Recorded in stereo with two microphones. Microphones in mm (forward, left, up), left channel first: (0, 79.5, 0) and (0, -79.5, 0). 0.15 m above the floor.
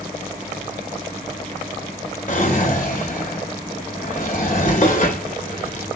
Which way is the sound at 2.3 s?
55° left (ahead or behind).